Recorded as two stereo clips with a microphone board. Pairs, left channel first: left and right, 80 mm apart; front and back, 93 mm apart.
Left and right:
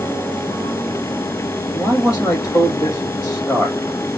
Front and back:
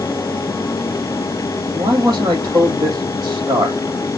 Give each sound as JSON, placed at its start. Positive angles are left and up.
{"t": 1.7, "sound": "a man speaking", "azimuth_deg": 140, "distance_m": 4.0}